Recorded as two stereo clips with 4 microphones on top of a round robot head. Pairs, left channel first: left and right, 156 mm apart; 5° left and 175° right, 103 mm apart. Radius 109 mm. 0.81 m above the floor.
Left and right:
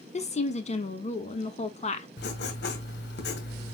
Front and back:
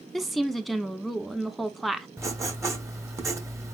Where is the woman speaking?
95° left, 1.2 m.